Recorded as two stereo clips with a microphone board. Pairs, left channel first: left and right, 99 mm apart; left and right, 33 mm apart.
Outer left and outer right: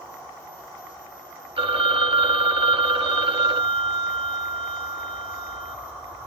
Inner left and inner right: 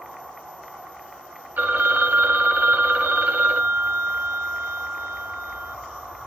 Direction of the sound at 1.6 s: 65° right (ahead or behind).